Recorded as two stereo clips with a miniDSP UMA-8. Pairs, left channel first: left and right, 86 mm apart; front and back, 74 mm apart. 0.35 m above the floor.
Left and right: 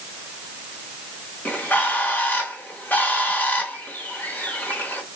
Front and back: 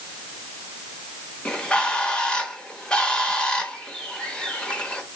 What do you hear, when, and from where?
1.4 s a bird: 60° left, 0.8 m